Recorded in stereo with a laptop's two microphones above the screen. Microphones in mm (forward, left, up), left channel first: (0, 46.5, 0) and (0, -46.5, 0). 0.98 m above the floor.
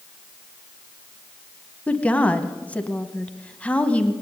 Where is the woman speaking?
10° left (ahead or behind), 0.9 m.